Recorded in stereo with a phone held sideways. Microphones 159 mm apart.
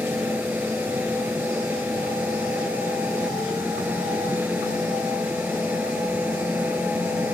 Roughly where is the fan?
Centre.